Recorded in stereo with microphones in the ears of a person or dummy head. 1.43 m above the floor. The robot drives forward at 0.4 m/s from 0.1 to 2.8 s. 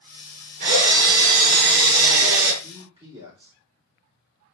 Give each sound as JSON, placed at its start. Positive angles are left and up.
{"t": 0.6, "sound": "a drill", "side_deg": -60, "distance_m": 2.5}
{"t": 2.6, "sound": "a man speaking", "side_deg": -30, "distance_m": 3.0}